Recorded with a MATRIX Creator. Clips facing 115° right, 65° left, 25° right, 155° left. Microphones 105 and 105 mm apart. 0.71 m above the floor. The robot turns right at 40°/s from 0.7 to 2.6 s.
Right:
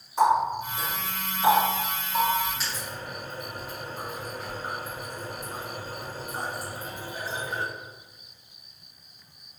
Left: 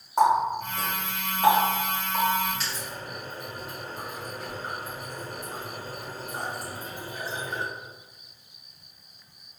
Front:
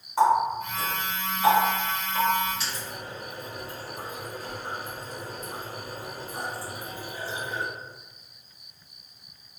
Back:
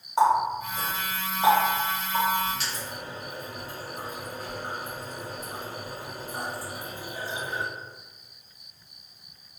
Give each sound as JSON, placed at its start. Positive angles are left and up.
{"t": 0.2, "sound": "a running tap", "azimuth_deg": 85, "distance_m": 1.7}